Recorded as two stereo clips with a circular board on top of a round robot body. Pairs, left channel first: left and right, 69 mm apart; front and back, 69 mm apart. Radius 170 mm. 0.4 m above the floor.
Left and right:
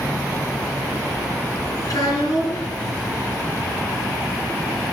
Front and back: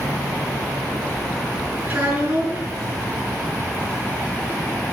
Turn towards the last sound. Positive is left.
turn(degrees=115)